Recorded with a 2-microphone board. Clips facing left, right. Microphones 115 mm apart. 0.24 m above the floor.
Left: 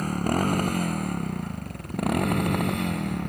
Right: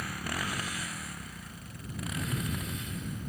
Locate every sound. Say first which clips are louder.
0.0 s a motorcycle: left 12 dB; 45° left (ahead or behind); by 3.3 s 75° left (ahead or behind)